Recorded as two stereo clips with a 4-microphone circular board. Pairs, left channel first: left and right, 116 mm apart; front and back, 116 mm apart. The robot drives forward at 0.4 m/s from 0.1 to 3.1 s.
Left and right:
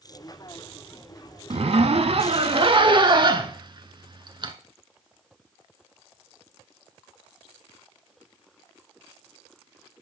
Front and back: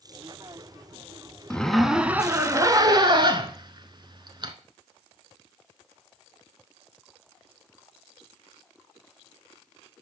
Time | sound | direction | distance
1.5 | a zipper | 80° right | 0.6 m